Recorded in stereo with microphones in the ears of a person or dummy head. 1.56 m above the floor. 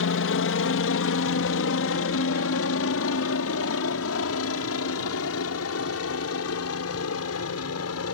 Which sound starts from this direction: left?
A helicopter, at 0.0 s.